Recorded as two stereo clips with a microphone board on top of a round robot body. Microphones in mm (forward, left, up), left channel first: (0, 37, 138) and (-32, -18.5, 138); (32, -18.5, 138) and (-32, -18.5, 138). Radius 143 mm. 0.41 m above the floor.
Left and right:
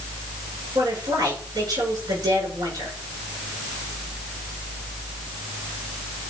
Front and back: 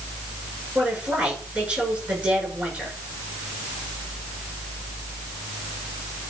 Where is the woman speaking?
110° right, 8 m.